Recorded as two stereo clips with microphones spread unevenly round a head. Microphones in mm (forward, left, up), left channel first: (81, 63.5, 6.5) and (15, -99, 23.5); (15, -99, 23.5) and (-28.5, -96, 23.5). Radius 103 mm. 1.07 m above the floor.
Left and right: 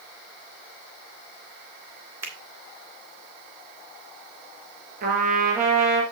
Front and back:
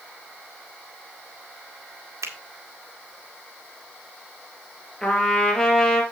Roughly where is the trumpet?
Right.